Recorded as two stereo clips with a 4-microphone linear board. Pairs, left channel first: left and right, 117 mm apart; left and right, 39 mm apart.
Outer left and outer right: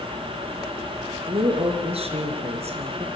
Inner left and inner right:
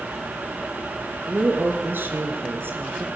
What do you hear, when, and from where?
1.3 s a woman speaking: 60° right (ahead or behind), 4 m; by 3.1 s 70° right (ahead or behind), 3.5 m